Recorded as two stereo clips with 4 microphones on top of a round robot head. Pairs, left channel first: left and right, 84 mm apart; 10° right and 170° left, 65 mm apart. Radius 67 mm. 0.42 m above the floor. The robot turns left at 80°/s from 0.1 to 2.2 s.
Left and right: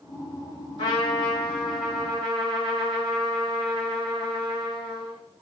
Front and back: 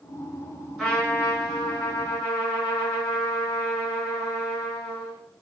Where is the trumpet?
80° left, 2.5 m; by 5.2 s 30° right, 2.5 m.